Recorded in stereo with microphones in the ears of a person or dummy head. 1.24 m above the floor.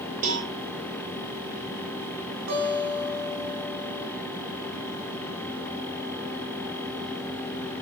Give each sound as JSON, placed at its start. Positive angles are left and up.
{"t": 0.2, "sound": "a cowbell", "side_deg": -45, "distance_m": 5.0}
{"t": 2.5, "sound": "a guitar", "side_deg": -60, "distance_m": 9.5}